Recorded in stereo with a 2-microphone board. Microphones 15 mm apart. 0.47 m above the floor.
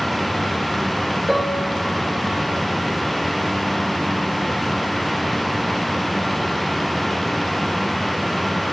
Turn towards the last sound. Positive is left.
turn(degrees=10)  # may be behind; listen again after turning